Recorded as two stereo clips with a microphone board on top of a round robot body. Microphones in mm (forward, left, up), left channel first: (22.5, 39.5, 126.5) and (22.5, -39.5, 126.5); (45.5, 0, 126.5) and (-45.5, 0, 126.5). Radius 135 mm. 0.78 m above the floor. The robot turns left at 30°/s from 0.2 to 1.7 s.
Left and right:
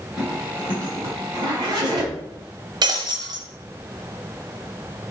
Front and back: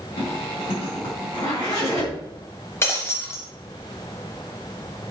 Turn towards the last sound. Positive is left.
turn(degrees=-65)